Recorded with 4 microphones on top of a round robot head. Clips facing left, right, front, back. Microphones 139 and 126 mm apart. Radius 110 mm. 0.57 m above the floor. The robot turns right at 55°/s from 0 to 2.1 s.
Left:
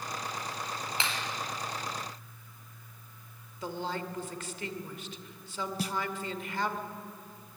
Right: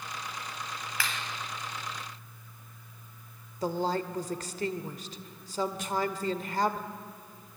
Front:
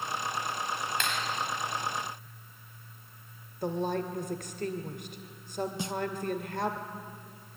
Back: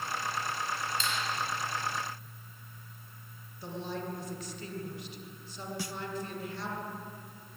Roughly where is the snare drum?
Ahead left.